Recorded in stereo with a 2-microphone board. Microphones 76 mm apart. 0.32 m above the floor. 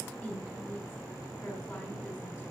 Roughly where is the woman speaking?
Centre.